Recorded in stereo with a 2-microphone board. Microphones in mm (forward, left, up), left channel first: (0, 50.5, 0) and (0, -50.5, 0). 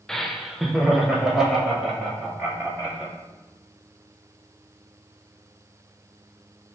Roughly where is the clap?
No clap in this recording.